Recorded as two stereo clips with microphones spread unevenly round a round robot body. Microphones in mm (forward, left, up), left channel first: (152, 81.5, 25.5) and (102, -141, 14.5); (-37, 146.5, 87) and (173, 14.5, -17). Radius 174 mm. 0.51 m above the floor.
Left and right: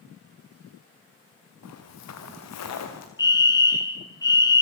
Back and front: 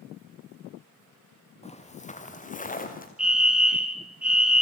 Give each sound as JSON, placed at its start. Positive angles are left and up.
{"t": 1.6, "sound": "footsteps", "azimuth_deg": 85, "distance_m": 3.0}
{"t": 3.2, "sound": "a fire alarm", "azimuth_deg": 10, "distance_m": 2.5}